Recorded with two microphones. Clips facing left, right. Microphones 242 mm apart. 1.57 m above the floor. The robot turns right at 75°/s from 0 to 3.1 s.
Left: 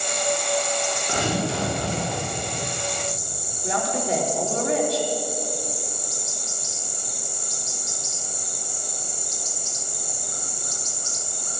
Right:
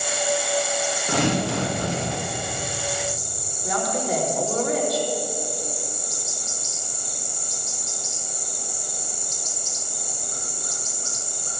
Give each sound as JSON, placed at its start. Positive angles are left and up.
{"t": 1.1, "sound": "tearing paper", "azimuth_deg": -105, "distance_m": 3.0}
{"t": 3.6, "sound": "a woman speaking", "side_deg": 30, "distance_m": 3.0}